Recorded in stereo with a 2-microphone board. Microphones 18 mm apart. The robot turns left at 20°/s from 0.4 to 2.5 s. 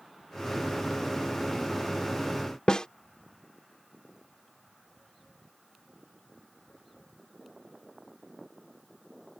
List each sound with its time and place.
2.7 s a snare drum: 50° left (ahead or behind)